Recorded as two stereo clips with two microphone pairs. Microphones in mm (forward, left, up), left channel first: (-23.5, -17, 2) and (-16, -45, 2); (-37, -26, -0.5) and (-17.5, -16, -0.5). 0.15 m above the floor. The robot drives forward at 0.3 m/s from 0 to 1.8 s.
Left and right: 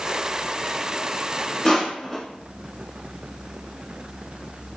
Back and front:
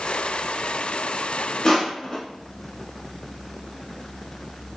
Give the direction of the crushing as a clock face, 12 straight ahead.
6 o'clock.